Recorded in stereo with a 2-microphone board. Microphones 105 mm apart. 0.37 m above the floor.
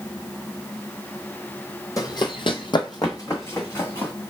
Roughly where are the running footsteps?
Left.